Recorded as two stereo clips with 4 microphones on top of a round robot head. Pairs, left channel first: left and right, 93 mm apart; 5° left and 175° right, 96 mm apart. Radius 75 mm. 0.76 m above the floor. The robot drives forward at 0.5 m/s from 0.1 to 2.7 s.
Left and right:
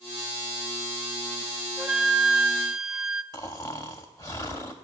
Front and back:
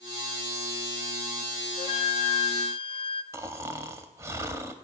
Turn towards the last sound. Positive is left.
turn(degrees=145)